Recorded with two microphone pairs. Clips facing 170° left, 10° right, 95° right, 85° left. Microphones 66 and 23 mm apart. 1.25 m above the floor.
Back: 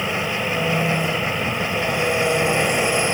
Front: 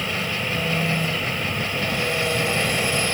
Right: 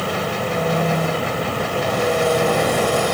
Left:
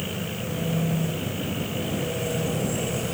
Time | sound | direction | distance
0.0 | an engine running | 115° right | ?